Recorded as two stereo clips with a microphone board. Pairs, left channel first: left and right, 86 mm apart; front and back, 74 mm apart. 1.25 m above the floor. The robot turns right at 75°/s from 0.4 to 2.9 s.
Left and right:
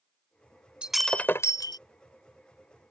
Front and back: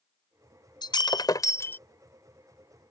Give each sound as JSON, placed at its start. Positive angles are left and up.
{"t": 0.8, "sound": "breaking glass", "azimuth_deg": -10}